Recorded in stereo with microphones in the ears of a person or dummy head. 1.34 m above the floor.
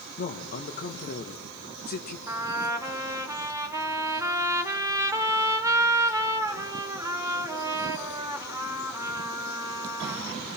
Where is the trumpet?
10° right (ahead or behind), 0.9 m.